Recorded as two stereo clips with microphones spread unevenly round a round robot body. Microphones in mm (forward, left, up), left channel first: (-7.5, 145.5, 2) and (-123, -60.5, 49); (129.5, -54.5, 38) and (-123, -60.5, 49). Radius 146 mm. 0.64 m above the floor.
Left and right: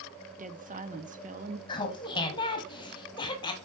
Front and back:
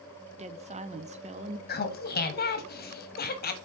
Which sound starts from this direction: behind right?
A woman speaking, at 0.3 s.